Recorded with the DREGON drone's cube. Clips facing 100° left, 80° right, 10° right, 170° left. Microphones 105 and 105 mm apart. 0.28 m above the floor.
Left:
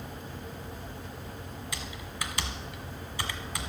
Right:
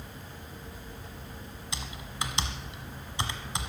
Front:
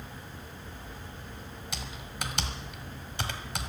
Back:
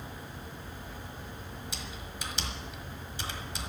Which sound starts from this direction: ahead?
Typing on a keyboard, at 1.7 s.